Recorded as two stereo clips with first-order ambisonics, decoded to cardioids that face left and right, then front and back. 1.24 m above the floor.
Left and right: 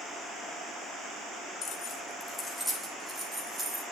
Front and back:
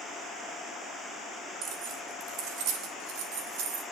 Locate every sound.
1.6 s keys jangling: 140° left, 1.8 m; by 3.8 s 170° right, 4.5 m